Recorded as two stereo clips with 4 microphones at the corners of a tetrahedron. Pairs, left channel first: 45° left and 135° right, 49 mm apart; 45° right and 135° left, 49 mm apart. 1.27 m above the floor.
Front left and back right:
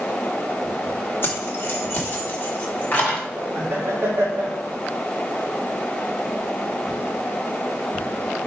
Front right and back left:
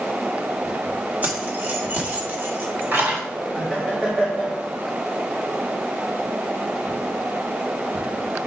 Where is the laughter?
160° right, 1.8 m.